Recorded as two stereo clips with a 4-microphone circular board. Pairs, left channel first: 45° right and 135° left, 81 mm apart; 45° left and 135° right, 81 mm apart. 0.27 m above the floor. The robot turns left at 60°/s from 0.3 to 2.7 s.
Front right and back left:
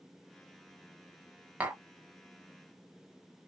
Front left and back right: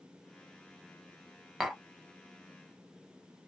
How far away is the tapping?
About 1.0 m.